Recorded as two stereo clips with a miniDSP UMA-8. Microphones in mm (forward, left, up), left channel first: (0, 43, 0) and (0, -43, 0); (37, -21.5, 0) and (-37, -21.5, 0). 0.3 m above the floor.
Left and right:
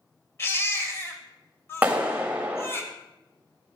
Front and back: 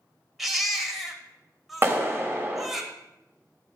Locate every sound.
0.4 s a baby crying: 90° left, 1.0 m
1.8 s a clap: 150° right, 1.0 m